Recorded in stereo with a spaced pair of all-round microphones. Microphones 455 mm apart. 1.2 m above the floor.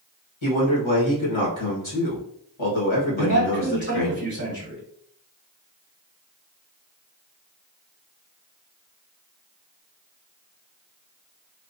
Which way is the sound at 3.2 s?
25° right (ahead or behind).